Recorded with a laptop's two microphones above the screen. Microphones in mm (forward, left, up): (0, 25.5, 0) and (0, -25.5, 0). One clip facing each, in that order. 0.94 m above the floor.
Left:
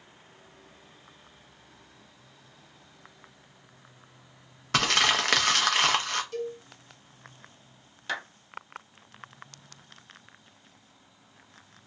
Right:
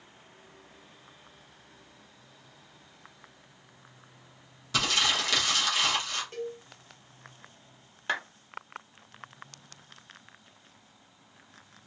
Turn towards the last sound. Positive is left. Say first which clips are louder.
# right 2 dB
turn(degrees=-25)  # may be behind; listen again after turning